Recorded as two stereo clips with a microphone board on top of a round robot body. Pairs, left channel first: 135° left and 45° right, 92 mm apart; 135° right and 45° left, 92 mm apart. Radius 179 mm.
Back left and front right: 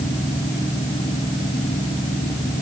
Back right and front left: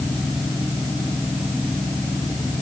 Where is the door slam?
I don't hear a door slam.